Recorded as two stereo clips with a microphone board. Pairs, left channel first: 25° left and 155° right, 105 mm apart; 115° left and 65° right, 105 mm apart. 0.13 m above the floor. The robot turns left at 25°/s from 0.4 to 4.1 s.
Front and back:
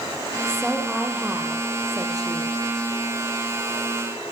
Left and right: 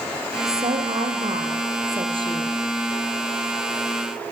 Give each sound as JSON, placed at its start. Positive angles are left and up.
{"t": 0.5, "sound": "a woman speaking", "azimuth_deg": -60, "distance_m": 4.0}